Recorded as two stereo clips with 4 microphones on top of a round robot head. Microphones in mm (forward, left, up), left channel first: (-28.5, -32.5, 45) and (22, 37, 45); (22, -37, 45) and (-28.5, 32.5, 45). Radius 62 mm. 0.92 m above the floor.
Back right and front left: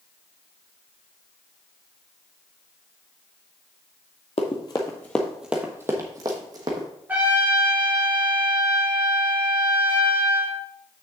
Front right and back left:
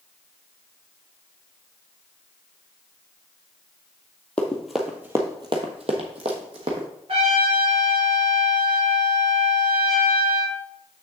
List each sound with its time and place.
4.4 s running footsteps: 130° right, 1.1 m; by 6.9 s 95° left, 1.9 m
7.1 s a trumpet: 125° left, 3 m